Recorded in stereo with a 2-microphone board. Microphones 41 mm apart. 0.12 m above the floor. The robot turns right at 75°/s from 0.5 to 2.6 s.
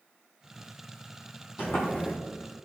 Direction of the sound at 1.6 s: 85° left.